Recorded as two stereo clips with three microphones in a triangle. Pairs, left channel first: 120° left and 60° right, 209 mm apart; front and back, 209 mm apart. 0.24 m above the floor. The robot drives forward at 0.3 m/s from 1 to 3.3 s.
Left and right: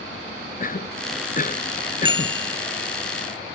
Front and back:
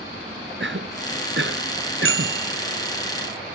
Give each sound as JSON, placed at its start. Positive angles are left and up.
{"t": 0.6, "sound": "a cough", "azimuth_deg": 165}
{"t": 2.0, "sound": "a bicycle bell", "azimuth_deg": 5}